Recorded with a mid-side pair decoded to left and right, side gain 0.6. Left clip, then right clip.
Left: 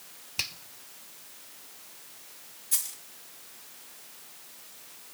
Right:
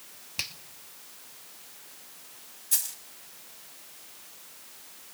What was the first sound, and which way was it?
A finger snap, straight ahead.